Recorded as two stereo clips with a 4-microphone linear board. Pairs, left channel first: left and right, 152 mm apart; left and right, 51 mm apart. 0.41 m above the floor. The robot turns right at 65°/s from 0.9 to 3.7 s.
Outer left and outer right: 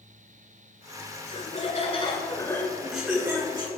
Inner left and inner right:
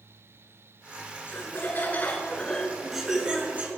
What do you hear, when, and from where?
1.3 s laughter: 65° left, 1.7 m; by 3.7 s 135° right, 1.7 m